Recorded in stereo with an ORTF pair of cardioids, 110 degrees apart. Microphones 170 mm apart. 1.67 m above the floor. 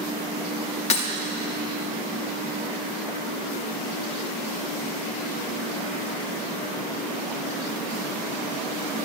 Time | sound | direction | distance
0.9 | breaking glass | 45° left | 2.5 m